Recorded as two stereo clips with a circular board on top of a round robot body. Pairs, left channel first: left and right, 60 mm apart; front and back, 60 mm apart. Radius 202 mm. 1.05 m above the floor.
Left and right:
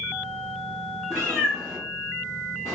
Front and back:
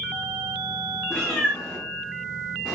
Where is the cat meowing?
85° right, 1.0 m; by 2.8 s 105° left, 1.0 m.